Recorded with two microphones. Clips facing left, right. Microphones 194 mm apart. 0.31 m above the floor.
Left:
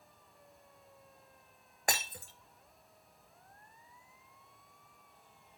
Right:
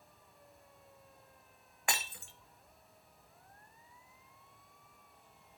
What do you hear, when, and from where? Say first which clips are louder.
1.9 s breaking glass: left 3 dB; 40° left (ahead or behind), 0.9 m